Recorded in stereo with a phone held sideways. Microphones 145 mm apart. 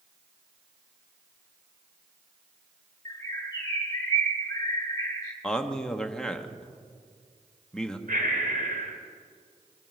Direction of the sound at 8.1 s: 85° right.